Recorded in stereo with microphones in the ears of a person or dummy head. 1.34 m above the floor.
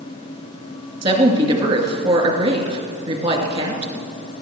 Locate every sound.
1.0 s a woman speaking: 30° right (ahead or behind), 2.5 m